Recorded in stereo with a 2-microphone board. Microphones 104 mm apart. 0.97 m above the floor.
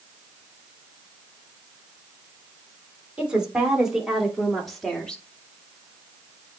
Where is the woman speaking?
10° right (ahead or behind), 3 m; by 5.2 s 10° left (ahead or behind), 1.8 m.